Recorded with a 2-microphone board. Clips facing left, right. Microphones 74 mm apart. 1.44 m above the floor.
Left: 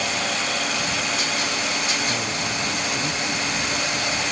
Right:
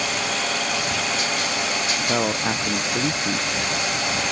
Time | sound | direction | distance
2.0 | a man speaking | 80° right | ?